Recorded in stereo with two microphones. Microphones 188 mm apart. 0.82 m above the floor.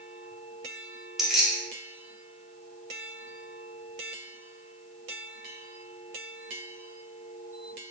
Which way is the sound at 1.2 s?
Centre (ahead or behind).